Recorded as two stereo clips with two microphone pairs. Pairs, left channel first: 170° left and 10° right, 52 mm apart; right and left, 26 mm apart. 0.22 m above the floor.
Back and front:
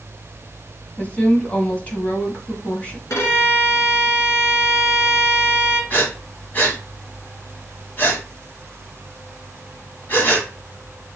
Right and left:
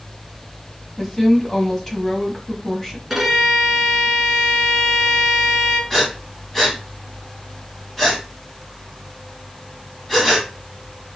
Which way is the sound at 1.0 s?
155° right.